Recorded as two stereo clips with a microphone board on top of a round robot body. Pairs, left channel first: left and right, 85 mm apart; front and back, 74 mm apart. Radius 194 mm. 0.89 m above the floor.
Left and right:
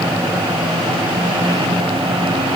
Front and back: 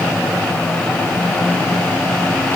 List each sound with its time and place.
Only background noise.